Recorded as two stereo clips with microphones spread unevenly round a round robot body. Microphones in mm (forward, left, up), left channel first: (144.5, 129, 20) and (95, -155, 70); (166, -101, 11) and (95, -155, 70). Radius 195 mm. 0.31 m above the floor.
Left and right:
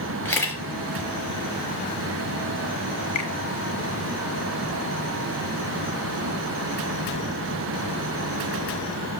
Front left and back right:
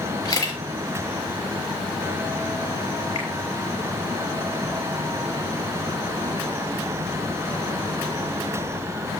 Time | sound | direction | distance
0.2 | a camera shutter | straight ahead | 5 m
3.1 | a finger snap | 65° left | 4 m